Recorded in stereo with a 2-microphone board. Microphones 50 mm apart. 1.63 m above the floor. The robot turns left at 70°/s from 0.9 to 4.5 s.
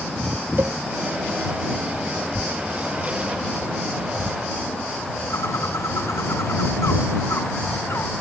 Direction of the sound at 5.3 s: 80° left.